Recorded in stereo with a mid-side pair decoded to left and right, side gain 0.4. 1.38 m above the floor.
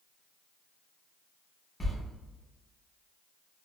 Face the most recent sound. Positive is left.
turn(degrees=25)